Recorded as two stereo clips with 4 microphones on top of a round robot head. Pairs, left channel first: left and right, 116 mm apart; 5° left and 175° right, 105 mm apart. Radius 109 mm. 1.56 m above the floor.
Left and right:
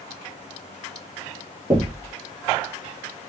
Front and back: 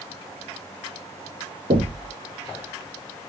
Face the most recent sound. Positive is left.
turn(degrees=-155)